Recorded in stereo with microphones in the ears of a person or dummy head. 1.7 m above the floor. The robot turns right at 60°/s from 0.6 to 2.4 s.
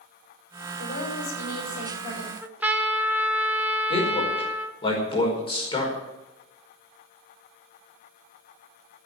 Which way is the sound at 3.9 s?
20° left (ahead or behind).